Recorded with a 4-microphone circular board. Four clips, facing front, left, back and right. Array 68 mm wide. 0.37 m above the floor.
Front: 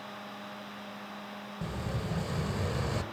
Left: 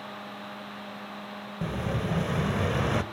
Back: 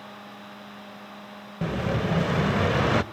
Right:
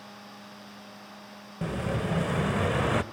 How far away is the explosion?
About 0.6 m.